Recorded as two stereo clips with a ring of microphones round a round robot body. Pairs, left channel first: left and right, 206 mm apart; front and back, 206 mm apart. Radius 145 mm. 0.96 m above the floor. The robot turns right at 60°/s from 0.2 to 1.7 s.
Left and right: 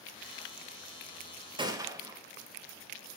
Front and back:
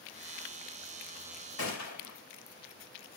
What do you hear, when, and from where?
1.6 s a gunshot: 25° right, 4 m; by 2.2 s 20° right, 4 m